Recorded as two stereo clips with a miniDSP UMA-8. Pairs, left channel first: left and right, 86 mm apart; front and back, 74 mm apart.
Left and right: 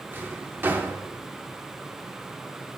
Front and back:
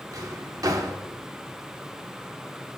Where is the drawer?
150° right, 0.6 m.